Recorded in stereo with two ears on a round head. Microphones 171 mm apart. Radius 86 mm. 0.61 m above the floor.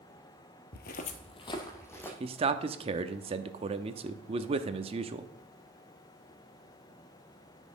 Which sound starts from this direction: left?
Footsteps, at 0.7 s.